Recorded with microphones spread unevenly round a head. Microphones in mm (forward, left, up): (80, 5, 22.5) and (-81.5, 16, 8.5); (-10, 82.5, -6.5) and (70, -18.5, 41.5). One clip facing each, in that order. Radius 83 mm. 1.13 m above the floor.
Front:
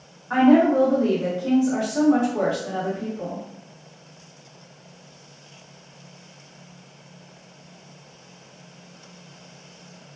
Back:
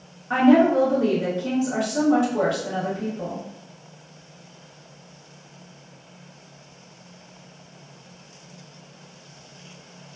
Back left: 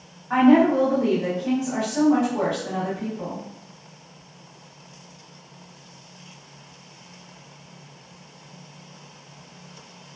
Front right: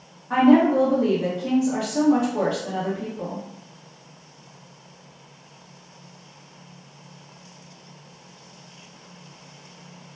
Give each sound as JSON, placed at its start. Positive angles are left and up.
{"t": 0.3, "sound": "a woman speaking", "azimuth_deg": -130, "distance_m": 1.5}